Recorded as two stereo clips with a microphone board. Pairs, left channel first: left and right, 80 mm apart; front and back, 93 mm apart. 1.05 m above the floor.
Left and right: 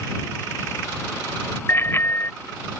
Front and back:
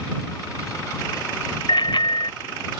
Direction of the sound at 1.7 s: 30° left.